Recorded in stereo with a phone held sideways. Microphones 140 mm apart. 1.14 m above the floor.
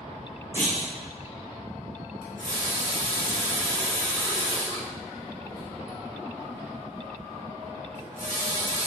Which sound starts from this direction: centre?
A clunk, at 0.5 s.